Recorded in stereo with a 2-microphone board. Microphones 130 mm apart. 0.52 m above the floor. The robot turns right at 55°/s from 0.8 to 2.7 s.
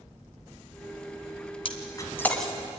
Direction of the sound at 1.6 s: 45° left (ahead or behind).